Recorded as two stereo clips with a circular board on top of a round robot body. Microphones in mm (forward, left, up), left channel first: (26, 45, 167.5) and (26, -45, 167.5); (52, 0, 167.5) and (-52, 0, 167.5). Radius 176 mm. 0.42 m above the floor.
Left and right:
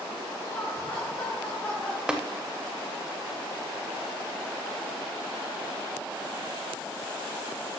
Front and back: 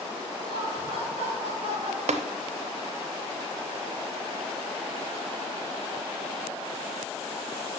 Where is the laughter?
150° left, 4 m; by 2.0 s 165° left, 4 m.